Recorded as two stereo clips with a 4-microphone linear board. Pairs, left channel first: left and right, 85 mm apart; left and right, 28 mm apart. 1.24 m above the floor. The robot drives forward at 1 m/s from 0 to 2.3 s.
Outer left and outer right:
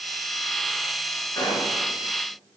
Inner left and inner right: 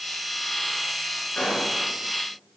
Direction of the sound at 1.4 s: 45° left (ahead or behind).